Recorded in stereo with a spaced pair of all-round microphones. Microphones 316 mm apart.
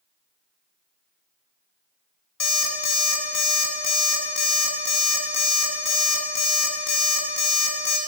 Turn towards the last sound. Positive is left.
turn(degrees=70)  # may be behind; listen again after turning